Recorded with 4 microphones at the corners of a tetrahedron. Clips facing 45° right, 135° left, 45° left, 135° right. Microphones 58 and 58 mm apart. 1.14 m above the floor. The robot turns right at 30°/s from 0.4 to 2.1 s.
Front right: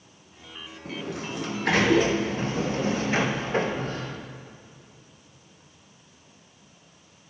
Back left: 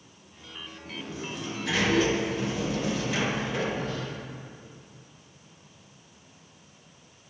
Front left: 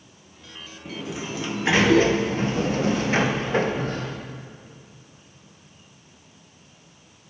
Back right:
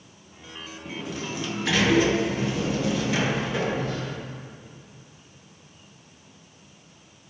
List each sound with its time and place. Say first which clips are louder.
0.8 s a sliding door: front right 4 dB, front left 1 dB; 40° right, 0.5 m; by 4.2 s straight ahead, 0.5 m